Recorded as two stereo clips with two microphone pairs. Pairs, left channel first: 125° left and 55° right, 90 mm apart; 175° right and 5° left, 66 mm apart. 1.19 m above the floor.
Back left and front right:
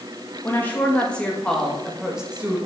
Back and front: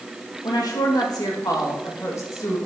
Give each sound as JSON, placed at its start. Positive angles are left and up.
{"t": 0.4, "sound": "a woman speaking", "azimuth_deg": -170, "distance_m": 2.5}